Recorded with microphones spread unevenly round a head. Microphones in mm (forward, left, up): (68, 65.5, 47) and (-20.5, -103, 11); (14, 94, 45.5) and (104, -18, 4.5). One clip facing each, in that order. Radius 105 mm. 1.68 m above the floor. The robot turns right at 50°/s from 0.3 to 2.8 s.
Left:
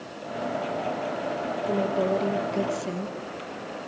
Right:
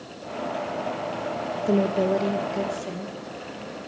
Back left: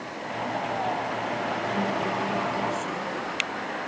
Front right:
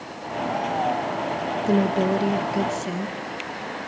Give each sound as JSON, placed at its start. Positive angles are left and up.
{"t": 1.7, "sound": "a woman speaking", "azimuth_deg": -60, "distance_m": 2.0}